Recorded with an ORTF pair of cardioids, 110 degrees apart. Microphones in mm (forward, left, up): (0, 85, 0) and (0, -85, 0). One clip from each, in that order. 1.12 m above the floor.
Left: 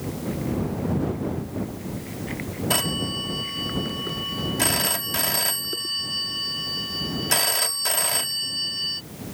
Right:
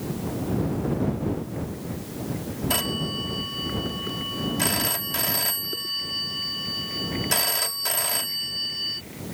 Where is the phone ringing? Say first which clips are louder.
Left 2 dB; 10° left.